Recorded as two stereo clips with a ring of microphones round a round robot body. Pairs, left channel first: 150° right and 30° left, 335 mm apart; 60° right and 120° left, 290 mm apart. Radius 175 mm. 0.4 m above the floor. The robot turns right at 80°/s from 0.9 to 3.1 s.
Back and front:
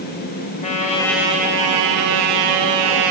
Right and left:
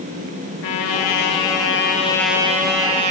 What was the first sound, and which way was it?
A trumpet, 80° right.